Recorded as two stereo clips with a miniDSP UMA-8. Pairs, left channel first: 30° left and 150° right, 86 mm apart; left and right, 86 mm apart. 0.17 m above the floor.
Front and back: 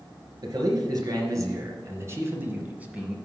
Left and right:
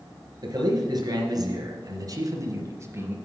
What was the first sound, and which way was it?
A man speaking, 115° right.